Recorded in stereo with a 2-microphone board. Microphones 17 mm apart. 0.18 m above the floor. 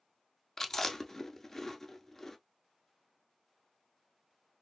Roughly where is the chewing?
Left.